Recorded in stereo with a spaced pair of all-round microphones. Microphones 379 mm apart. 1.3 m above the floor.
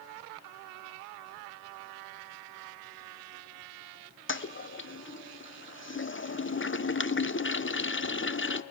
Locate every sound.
4.3 s a toilet flushing: 35° left (ahead or behind), 0.5 m